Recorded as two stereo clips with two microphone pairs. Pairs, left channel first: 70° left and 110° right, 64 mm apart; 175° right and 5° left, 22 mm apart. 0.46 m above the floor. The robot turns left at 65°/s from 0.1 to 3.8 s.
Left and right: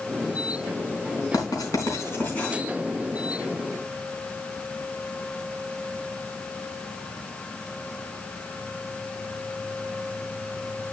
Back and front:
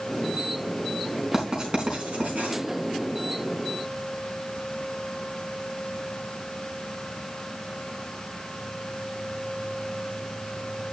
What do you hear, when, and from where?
1.3 s writing: 70° left, 3.5 m; by 2.5 s 5° right, 3.5 m